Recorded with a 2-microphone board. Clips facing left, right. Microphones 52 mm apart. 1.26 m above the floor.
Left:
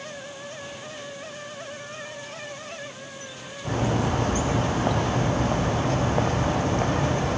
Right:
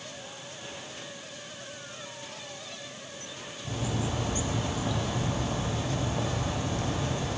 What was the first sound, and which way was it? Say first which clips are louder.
A bird: left 8 dB; 50° left (ahead or behind).